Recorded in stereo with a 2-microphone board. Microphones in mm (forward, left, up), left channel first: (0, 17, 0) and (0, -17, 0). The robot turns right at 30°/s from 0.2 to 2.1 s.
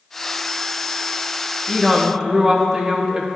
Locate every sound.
1.7 s a woman speaking: 10° right (ahead or behind), 0.9 m; by 3.3 s 20° right (ahead or behind), 0.9 m